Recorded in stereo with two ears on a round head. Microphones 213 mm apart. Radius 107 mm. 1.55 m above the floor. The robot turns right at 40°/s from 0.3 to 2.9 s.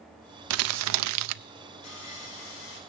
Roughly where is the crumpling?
Right.